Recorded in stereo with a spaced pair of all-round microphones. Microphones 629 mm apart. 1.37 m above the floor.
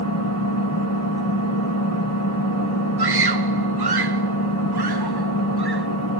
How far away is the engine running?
About 3.5 m.